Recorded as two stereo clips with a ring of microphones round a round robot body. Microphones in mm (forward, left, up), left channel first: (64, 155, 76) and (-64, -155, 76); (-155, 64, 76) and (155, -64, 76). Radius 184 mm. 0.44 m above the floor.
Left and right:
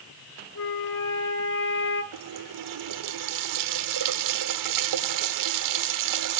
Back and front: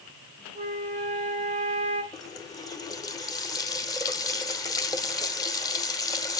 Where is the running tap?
125° right, 1.1 m.